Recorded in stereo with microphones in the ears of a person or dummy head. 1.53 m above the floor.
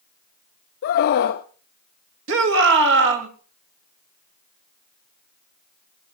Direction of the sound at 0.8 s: 50° left (ahead or behind).